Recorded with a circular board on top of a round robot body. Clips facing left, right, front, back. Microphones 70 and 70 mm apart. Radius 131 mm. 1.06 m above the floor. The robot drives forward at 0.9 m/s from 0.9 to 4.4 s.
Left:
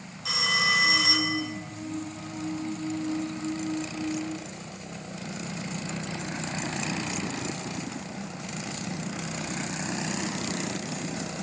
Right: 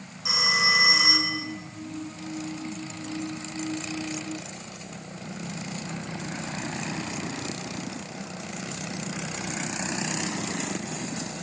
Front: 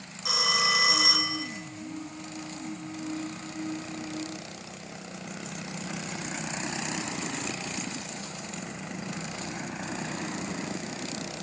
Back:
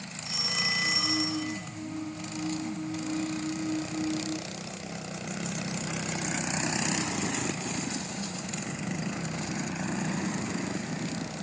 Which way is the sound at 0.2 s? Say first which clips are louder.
Right 1 dB, front 7 dB; 15° right.